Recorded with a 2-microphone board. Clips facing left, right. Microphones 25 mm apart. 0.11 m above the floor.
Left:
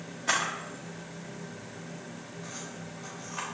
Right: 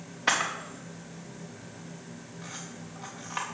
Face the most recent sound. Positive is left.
turn(degrees=-45)  # may be behind; listen again after turning